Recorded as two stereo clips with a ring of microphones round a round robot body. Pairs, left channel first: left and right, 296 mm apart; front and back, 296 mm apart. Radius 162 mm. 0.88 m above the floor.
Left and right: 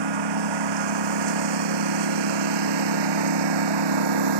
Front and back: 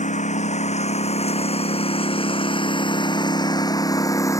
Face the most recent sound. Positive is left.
turn(degrees=-80)